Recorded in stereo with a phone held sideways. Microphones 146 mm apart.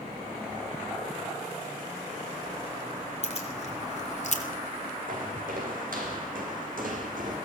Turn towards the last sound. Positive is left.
turn(degrees=-65)  # may be behind; listen again after turning